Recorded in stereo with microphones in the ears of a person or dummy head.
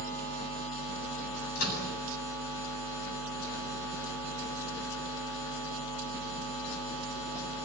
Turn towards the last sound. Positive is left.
turn(degrees=85)